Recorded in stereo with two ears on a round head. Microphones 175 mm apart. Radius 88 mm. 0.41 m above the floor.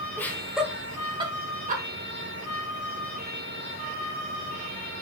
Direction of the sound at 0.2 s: 10° left (ahead or behind).